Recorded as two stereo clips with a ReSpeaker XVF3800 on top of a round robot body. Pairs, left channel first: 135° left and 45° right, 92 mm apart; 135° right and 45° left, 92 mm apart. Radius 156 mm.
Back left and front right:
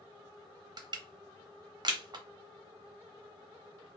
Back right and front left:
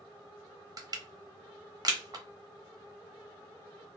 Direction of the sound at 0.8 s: Straight ahead.